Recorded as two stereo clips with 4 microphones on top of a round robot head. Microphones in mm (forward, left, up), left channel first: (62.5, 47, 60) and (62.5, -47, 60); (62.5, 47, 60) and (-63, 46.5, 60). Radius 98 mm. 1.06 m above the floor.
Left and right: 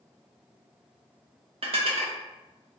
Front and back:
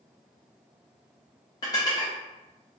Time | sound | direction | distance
1.6 | dishes clattering | 65° right | 0.8 m